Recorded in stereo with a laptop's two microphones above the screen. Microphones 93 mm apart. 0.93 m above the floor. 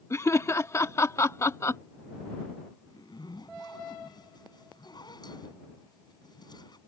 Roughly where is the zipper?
Left.